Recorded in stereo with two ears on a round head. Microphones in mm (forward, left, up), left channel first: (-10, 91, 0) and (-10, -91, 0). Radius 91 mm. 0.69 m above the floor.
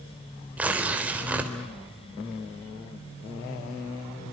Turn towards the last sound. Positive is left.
turn(degrees=-10)  # may be behind; listen again after turning